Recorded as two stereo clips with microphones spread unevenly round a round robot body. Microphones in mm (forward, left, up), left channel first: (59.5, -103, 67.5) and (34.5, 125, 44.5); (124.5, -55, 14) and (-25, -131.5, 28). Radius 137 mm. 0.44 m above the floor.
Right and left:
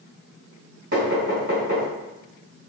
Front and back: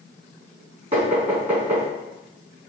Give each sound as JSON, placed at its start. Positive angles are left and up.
{"t": 0.9, "sound": "knocking", "azimuth_deg": 145, "distance_m": 3.0}